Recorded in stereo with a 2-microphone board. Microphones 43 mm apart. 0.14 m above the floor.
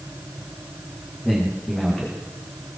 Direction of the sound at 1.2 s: 5° left (ahead or behind).